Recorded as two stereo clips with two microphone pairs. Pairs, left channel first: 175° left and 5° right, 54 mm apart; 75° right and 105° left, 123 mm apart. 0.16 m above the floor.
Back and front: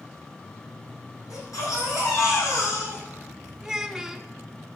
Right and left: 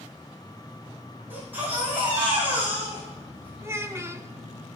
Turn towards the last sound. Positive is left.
turn(degrees=70)